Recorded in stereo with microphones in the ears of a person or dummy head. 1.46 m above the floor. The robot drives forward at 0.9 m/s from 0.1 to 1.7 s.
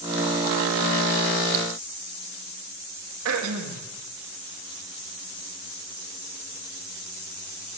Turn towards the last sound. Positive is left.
turn(degrees=-80)